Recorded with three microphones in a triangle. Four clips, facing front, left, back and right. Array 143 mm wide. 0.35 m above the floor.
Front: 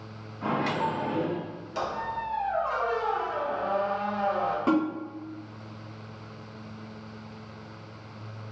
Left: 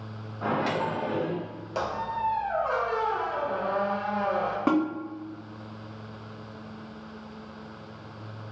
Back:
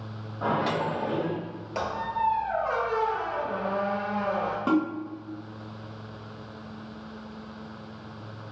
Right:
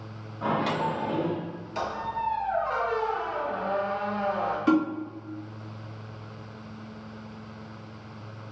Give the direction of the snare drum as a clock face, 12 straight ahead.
9 o'clock.